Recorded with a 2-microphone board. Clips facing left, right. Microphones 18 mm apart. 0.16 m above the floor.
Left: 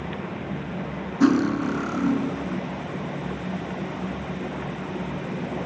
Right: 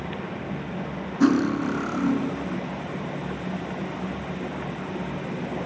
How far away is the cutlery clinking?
About 1.2 m.